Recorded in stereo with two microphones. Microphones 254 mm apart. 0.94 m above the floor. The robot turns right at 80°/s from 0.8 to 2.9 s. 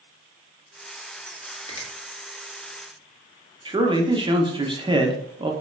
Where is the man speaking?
20° right (ahead or behind), 0.7 m.